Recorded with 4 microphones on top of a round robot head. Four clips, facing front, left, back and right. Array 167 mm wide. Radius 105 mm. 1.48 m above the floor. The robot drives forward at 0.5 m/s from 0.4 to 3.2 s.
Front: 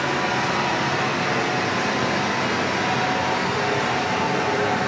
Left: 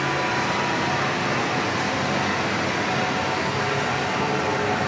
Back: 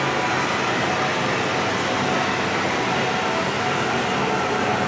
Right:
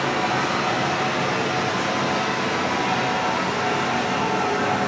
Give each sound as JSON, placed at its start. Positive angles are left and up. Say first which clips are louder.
{"t": 0.0, "sound": "running water", "louder": "right 1 dB, back 1 dB", "azimuth_deg": -140, "distance_m": 6.0}